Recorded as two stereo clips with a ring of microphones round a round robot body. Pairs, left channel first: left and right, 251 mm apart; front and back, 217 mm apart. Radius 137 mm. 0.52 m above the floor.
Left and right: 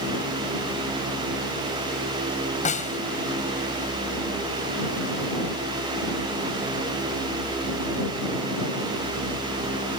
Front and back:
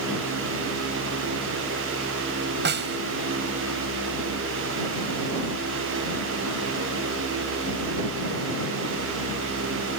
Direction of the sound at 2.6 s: 150° left.